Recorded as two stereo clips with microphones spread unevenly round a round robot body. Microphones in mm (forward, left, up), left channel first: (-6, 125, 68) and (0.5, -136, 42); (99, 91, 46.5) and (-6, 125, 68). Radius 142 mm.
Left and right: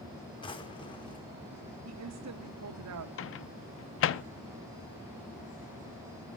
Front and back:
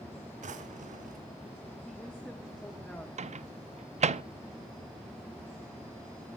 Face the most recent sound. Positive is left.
turn(degrees=135)